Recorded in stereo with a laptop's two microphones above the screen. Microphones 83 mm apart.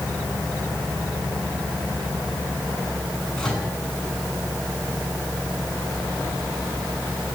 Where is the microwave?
5° left (ahead or behind), 8 m.